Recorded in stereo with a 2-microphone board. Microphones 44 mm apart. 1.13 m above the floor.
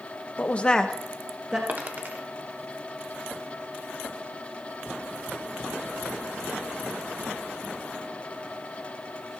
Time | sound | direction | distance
0.4 | a woman speaking | 35° left (ahead or behind) | 0.7 m
1.7 | a dropped coin | 40° right (ahead or behind) | 1.3 m